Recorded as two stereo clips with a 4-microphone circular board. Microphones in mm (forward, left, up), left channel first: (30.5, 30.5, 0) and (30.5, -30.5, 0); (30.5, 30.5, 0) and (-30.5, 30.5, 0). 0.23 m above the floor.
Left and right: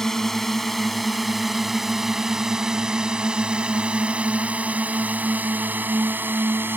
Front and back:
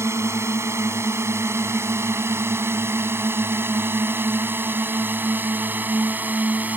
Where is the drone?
175° left; by 6.8 s 130° right.